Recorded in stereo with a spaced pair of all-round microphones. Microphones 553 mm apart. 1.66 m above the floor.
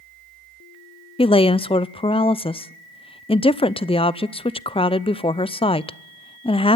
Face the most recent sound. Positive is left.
turn(degrees=10)  # may be behind; listen again after turning